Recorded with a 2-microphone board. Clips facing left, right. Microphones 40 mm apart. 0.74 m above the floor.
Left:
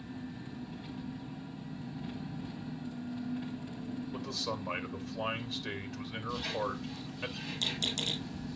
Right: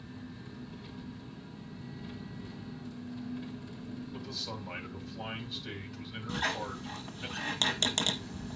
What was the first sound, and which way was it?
An engine running, 40° left (ahead or behind).